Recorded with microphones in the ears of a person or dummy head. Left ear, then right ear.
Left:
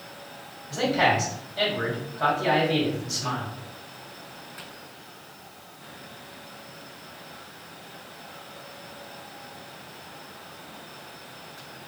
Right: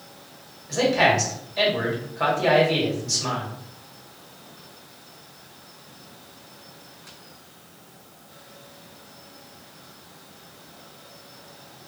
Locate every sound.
0.7 s a man speaking: 65° right (ahead or behind), 1.3 m